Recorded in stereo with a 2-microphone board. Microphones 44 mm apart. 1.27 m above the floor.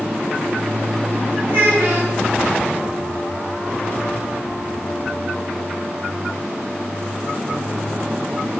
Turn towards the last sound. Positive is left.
turn(degrees=-40)  # may be behind; listen again after turning